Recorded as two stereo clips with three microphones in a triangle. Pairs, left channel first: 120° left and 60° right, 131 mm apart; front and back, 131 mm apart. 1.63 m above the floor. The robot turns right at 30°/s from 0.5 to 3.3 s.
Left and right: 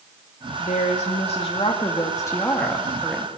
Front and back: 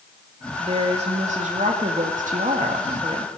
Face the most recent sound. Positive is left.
turn(degrees=-140)